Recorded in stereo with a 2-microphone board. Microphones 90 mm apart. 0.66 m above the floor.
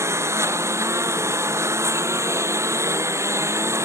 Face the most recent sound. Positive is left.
turn(degrees=-35)  # may be behind; listen again after turning